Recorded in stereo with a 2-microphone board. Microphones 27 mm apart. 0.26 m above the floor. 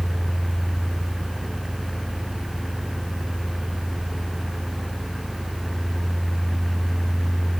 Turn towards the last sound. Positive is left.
No sound to turn to.